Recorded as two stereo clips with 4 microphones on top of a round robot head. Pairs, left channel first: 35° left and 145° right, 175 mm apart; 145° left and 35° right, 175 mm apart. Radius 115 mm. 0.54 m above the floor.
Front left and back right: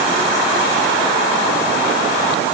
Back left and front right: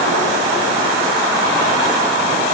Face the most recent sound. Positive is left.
No sound to turn to.